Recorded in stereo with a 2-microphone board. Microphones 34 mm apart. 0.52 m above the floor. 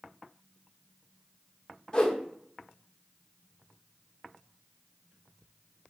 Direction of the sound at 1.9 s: 25° left (ahead or behind).